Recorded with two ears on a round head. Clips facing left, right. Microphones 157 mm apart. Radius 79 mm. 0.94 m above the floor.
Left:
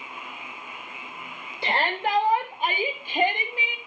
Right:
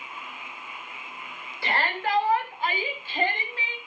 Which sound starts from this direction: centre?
A shout, at 1.6 s.